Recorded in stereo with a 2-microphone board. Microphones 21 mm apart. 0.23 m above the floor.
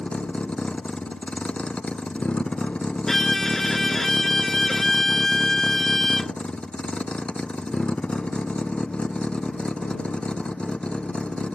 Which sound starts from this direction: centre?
A violin, at 3.1 s.